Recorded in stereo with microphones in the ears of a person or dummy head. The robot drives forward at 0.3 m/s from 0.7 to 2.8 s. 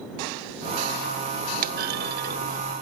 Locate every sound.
1.6 s a clunk: 40° right (ahead or behind), 0.5 m